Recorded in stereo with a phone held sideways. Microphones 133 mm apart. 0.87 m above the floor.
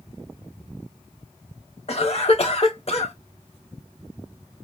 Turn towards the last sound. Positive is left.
turn(degrees=50)  # may be behind; listen again after turning